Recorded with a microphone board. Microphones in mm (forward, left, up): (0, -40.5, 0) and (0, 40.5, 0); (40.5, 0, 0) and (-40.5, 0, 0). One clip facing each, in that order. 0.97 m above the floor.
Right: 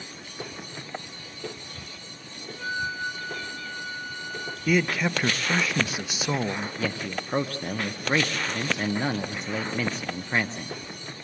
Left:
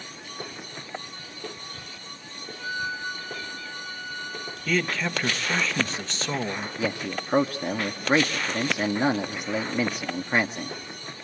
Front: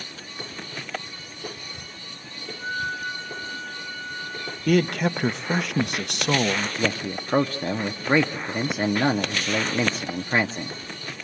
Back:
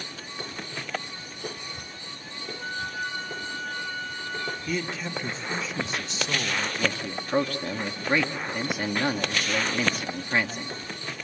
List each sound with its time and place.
2.5 s a flute: 150° right, 3.5 m
4.7 s a man speaking: 10° right, 0.7 m
6.8 s a man speaking: 35° left, 0.7 m